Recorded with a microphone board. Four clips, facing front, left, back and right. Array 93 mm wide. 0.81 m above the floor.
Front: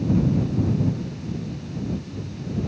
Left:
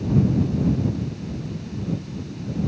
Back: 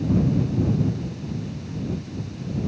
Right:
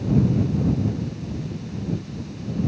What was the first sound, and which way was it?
Only background noise.